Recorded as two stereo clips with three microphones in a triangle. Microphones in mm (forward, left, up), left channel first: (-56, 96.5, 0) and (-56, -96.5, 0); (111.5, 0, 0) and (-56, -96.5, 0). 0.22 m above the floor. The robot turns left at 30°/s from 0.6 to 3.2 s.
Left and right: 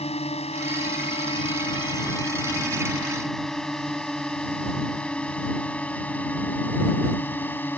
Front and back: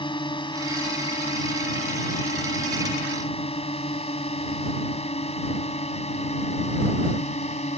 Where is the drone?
70° left; by 7.8 s 15° left.